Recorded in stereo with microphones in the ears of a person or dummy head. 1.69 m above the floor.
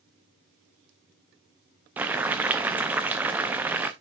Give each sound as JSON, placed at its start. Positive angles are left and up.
{"t": 2.0, "sound": "boiling", "side_deg": -5, "distance_m": 0.6}